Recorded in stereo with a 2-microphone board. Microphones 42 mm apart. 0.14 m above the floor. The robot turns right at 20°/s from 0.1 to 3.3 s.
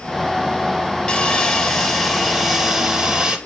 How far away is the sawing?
About 1.7 m.